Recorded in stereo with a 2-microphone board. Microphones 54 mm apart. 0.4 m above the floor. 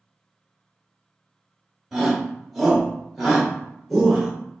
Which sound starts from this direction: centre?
A shout, at 1.9 s.